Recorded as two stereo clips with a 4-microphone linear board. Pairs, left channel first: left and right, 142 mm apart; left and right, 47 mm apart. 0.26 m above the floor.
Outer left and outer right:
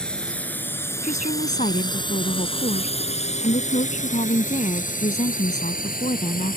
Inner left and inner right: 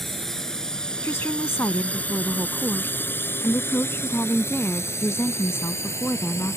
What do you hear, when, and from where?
0.0 s a drone: 5° left (ahead or behind); by 6.6 s 75° left (ahead or behind)
1.0 s a woman speaking: 60° left (ahead or behind)